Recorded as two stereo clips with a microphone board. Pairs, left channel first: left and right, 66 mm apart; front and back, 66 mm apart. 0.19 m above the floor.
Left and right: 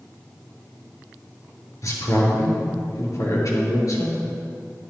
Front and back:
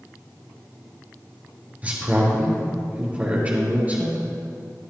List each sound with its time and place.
1.8 s a man speaking: 115° left, 3.5 m